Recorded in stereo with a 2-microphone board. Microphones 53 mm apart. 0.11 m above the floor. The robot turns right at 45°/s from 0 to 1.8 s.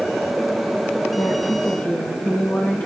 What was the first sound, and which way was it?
A woman speaking, 50° left (ahead or behind).